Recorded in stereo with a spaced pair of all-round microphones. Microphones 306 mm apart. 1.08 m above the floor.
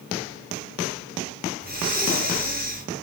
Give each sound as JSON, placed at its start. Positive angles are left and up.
{"t": 1.6, "sound": "breathing", "side_deg": -30, "distance_m": 2.0}